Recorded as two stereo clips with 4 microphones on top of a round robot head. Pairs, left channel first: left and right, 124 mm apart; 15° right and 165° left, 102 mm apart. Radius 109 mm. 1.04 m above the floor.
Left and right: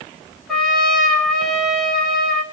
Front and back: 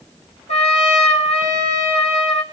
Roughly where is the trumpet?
Ahead.